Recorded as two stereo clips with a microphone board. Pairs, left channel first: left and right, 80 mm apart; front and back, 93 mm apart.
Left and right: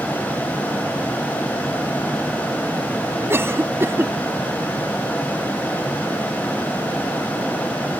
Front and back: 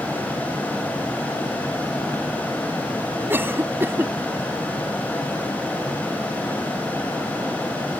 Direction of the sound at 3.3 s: 125° right.